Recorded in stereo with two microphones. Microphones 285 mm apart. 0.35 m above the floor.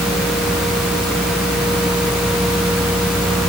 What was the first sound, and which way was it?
Only background noise.